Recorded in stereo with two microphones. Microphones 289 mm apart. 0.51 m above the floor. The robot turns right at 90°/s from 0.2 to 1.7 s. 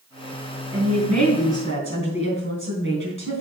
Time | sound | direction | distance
0.7 | a woman speaking | 135° right | 3.5 m